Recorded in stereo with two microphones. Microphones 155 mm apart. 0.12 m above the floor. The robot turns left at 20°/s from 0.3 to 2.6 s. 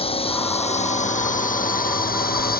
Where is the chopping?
I don't hear chopping.